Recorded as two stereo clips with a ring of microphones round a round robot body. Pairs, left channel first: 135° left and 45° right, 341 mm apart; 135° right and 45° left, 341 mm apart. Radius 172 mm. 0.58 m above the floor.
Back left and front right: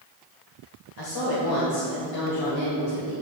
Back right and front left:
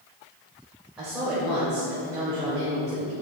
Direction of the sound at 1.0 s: 130° left.